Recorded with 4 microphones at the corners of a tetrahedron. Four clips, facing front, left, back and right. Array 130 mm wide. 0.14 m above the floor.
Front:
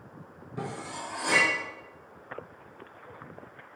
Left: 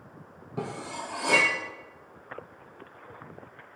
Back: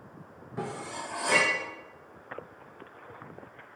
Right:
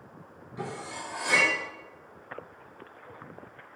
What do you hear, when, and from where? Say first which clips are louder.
0.6 s cutlery clinking: left 2 dB, back 1 dB; 80° left, 2.5 m